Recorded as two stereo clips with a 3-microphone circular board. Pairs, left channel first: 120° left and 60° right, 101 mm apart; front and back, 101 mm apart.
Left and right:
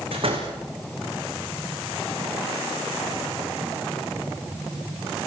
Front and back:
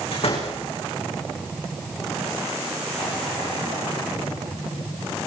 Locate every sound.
0.1 s a door slam: 25° right, 8.5 m